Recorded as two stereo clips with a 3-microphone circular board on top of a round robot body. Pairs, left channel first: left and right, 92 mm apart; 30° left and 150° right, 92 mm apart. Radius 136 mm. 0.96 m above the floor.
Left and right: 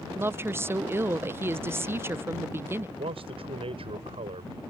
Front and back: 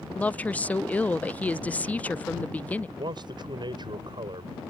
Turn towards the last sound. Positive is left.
turn(degrees=-110)